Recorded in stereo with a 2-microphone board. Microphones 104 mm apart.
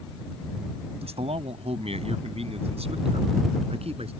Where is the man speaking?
85° right; by 4.1 s 75° right (ahead or behind).